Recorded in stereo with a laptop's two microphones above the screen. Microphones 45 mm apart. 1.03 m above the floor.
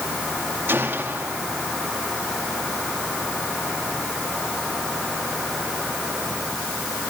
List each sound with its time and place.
0.7 s a gunshot: 60° right (ahead or behind), 2.5 m